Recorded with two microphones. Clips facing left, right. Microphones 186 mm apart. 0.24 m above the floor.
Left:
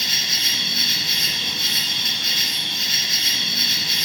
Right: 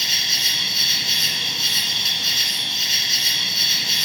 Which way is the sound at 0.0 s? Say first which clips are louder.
Left 1 dB; 60° left (ahead or behind).